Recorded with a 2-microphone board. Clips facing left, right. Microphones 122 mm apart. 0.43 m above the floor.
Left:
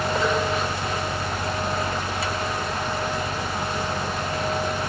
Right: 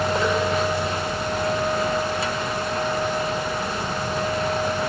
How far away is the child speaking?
I don't hear a child speaking.